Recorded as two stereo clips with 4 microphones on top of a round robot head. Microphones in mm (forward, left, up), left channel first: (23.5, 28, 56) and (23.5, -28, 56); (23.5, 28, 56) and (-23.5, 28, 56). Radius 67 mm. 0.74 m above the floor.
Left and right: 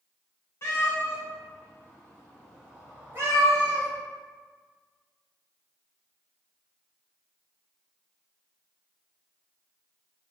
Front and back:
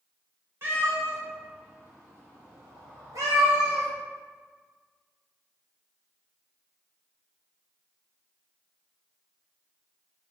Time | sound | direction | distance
0.6 | a cat meowing | 150° left | 1.7 m